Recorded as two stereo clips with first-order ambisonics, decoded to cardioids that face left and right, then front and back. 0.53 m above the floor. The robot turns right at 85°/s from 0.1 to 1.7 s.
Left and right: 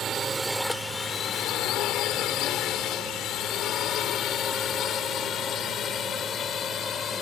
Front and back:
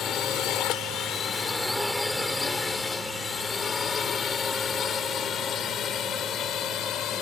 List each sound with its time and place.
0.0 s a drone: 40° right; by 7.2 s 35° left